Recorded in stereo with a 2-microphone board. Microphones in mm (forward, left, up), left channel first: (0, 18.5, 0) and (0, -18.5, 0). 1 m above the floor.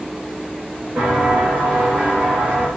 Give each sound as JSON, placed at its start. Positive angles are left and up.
{"t": 1.0, "sound": "footsteps", "side_deg": -55, "distance_m": 4.0}